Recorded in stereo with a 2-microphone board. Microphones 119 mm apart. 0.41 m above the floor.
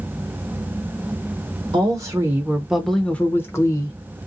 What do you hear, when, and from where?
1.7 s a woman speaking: 35° right (ahead or behind), 1.0 m; by 4.0 s 30° left (ahead or behind), 1.1 m